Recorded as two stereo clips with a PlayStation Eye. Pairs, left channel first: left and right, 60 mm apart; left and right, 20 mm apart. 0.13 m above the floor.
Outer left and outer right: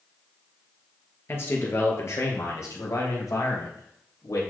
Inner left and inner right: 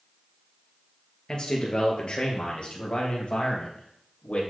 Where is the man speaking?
40° left (ahead or behind), 2.5 m; by 4.4 s 65° left (ahead or behind), 3.5 m.